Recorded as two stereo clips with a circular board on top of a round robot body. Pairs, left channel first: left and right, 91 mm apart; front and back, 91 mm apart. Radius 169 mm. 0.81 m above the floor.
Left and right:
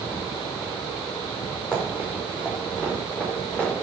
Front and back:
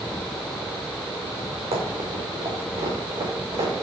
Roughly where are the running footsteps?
Behind.